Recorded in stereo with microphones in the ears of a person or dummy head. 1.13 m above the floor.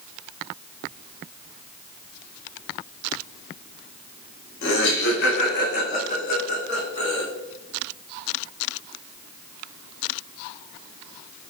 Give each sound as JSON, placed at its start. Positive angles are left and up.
{"t": 4.6, "sound": "laughter", "side_deg": 65, "distance_m": 1.5}